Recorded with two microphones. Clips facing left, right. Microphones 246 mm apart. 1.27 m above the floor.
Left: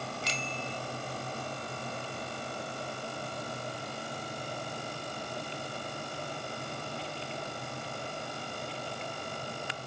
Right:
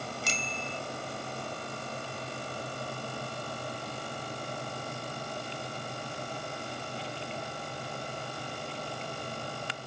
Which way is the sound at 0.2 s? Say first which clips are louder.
Even; 50° right (ahead or behind).